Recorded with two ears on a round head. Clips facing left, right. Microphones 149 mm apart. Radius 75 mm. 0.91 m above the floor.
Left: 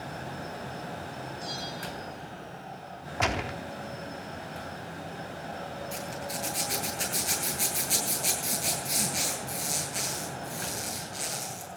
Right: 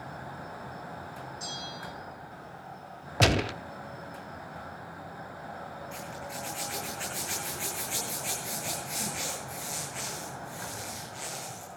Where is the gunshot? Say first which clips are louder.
Right 4 dB; 40° right (ahead or behind), 0.5 m.